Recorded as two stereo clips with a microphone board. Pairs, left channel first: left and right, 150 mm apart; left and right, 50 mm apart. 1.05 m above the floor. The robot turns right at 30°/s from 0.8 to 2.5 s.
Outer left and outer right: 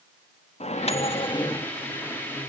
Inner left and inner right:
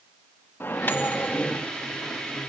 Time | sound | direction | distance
0.6 | a microwave | 50° left (ahead or behind) | 1.1 m